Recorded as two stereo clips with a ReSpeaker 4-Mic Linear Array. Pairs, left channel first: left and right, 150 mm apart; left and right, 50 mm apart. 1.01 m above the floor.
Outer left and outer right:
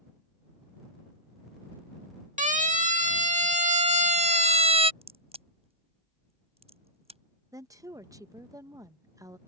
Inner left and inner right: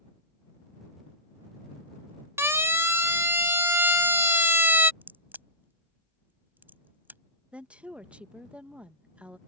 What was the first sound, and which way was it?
A siren, 55° right (ahead or behind).